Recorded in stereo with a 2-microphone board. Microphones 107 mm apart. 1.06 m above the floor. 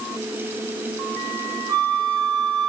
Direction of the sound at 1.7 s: 40° right (ahead or behind).